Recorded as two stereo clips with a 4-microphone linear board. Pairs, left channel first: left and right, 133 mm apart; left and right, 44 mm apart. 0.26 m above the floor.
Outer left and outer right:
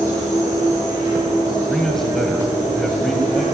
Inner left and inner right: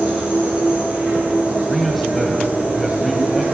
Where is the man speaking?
5° left (ahead or behind), 1.5 m.